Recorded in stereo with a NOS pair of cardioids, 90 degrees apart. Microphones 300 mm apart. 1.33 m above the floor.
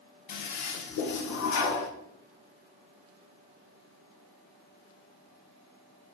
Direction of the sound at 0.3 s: 70° left.